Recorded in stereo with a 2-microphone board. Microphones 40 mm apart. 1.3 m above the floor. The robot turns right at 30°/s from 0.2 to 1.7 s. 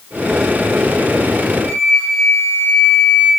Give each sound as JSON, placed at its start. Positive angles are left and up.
{"t": 1.6, "sound": "a flute", "side_deg": 75, "distance_m": 2.0}